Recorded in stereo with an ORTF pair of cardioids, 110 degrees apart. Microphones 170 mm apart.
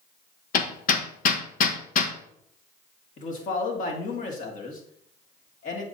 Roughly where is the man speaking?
Ahead left.